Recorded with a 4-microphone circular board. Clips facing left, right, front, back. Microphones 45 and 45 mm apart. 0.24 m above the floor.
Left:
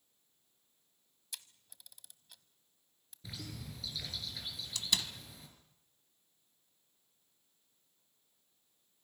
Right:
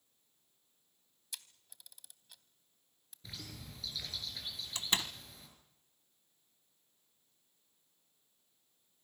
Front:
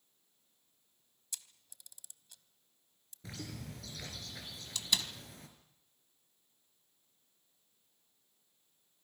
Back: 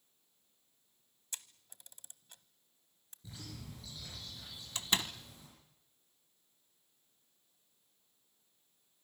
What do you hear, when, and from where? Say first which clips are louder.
1.3 s a camera shutter: even, back 2 dB; straight behind, 0.9 m
3.2 s a bird: left 3 dB, front 4 dB; 5° left, 4.5 m
4.8 s a door slam: right 1 dB, back 1 dB; 135° right, 1.1 m